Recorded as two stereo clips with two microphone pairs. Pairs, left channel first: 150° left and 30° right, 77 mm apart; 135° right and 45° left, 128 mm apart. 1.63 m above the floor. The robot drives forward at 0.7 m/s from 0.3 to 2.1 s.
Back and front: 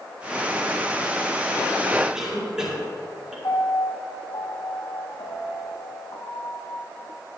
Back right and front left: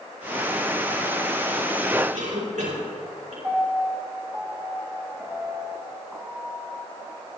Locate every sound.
2.1 s a cough: 50° left, 4 m
3.4 s a piano: 125° left, 1.7 m